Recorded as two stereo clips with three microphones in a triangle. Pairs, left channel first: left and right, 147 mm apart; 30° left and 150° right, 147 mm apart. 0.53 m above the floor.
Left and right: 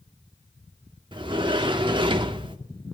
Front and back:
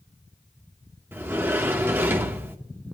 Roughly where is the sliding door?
Right.